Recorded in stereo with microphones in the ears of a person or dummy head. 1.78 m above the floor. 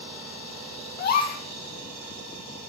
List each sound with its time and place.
1.0 s a gasp: 45° left (ahead or behind), 1.6 m